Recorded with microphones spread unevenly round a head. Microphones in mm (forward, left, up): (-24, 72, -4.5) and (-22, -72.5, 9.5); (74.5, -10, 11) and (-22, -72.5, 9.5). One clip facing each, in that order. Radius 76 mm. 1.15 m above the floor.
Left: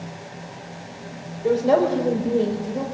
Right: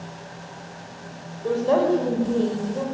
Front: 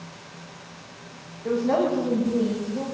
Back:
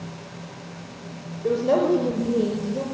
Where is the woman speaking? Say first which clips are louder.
Left 2 dB, back 2 dB; 165° left, 5.5 m.